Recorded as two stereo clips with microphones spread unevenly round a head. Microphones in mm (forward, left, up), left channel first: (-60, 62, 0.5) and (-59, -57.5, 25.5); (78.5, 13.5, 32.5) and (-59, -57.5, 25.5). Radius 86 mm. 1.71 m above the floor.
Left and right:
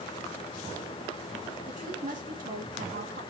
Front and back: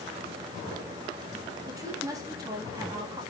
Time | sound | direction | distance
1.7 | a woman speaking | 85° right | 3 m